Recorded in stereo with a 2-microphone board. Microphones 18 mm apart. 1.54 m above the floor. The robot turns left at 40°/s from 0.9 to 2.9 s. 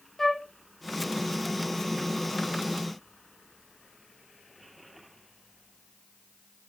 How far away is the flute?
About 0.6 m.